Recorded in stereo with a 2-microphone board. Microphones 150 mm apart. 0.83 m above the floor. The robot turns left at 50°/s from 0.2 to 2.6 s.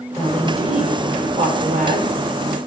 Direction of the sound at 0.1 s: 20° left.